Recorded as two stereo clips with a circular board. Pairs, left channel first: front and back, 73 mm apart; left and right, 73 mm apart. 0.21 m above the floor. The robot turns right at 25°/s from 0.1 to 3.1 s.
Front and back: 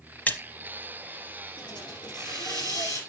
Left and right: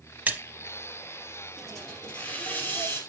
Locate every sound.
0.3 s a splash: 45° right, 0.9 m
1.6 s a hiss: straight ahead, 3 m; by 3.0 s 35° left, 3 m